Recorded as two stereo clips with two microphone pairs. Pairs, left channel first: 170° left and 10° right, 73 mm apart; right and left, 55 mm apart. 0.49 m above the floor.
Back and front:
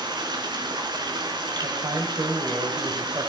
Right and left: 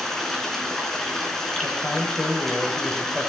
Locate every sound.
0.0 s running water: 10° right, 4 m
1.6 s a man speaking: 10° right, 3.5 m